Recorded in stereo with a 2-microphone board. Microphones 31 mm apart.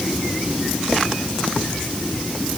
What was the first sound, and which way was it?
Only background noise.